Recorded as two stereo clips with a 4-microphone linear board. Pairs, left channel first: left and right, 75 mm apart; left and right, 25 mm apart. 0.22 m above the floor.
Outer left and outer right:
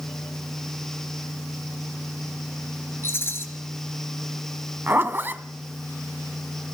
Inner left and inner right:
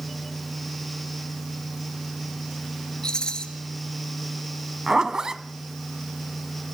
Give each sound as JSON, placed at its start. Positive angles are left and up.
{"t": 3.0, "sound": "a rattle", "side_deg": 35, "distance_m": 3.5}
{"t": 4.9, "sound": "a zipper", "side_deg": -30, "distance_m": 1.0}